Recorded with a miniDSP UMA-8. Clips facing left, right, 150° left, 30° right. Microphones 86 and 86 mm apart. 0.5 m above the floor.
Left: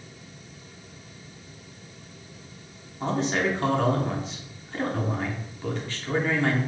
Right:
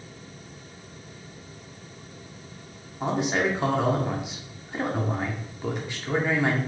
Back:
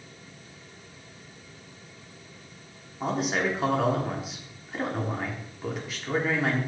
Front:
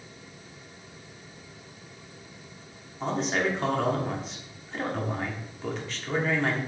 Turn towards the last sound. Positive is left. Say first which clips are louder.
# right 1 dB, even
turn(degrees=-135)